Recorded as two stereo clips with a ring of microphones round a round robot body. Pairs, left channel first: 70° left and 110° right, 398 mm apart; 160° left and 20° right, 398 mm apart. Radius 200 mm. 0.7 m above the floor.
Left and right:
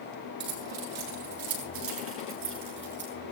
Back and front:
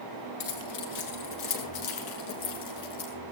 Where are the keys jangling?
160° right, 7.5 m; by 3.1 s 175° right, 6.5 m.